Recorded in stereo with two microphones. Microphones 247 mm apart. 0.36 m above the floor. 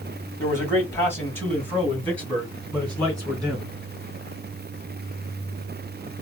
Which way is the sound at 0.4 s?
10° left (ahead or behind).